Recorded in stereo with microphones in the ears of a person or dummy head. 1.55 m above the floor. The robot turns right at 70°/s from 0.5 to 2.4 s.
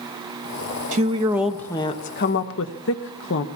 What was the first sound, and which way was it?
A woman speaking, 40° right.